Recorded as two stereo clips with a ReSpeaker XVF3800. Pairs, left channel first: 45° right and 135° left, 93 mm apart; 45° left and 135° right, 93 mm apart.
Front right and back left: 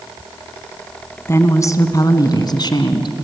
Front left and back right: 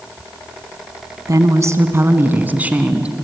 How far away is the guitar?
I don't hear a guitar.